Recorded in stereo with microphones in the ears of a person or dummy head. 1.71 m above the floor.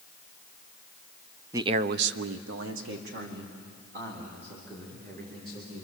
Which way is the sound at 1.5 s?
15° right (ahead or behind).